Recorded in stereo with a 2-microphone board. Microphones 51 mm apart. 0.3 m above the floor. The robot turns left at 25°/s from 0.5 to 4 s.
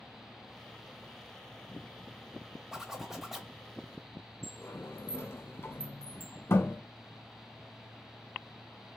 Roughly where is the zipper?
Centre.